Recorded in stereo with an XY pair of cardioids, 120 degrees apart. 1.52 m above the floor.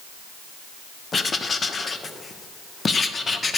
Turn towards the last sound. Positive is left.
turn(degrees=30)